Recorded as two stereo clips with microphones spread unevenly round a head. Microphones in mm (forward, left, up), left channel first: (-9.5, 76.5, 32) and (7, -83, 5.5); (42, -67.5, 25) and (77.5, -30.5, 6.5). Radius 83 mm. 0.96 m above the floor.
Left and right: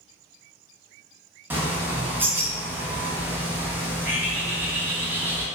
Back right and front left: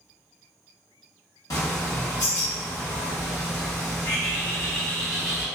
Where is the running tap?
No running tap in this recording.